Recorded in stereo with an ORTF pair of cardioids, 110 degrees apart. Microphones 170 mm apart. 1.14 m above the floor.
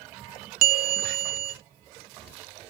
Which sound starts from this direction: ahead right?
A bell, at 0.6 s.